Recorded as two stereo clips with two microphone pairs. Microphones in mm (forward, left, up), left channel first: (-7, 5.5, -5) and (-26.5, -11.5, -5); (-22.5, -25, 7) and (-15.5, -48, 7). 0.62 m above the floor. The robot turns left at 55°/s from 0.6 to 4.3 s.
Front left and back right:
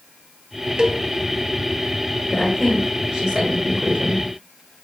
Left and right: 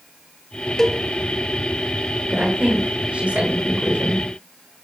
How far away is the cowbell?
About 1.0 m.